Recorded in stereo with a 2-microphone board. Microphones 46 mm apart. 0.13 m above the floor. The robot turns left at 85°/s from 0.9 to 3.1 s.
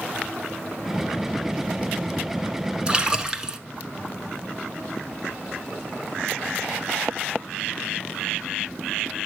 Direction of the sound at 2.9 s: 25° right (ahead or behind).